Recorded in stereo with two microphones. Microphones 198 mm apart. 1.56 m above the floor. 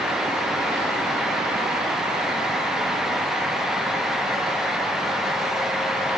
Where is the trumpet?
No trumpet in this recording.